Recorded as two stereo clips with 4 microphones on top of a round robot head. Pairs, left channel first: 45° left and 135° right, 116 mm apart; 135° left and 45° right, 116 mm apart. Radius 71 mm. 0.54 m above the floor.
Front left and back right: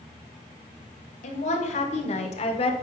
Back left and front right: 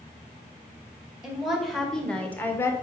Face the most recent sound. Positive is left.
turn(degrees=70)